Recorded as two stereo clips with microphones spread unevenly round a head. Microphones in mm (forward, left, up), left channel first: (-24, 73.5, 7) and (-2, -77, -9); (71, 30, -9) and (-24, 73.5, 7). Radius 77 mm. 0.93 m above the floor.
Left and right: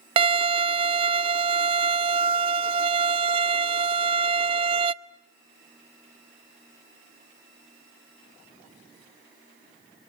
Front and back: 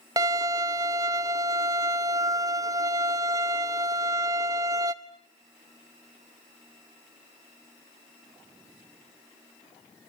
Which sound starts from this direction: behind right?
A violin, at 0.2 s.